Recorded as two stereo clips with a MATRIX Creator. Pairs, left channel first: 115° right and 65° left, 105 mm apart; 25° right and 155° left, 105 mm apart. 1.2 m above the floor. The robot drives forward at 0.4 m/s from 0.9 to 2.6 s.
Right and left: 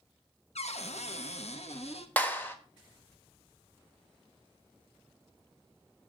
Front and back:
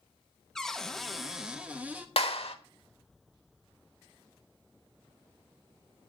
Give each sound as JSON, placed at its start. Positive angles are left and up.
{"t": 0.6, "sound": "a cupboard door", "azimuth_deg": -110, "distance_m": 1.0}
{"t": 2.2, "sound": "a clap", "azimuth_deg": -40, "distance_m": 1.4}